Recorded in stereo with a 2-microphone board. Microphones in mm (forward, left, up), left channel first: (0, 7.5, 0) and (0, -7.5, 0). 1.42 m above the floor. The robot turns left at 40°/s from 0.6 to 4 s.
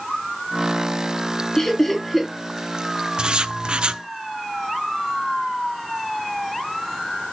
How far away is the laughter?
About 3 m.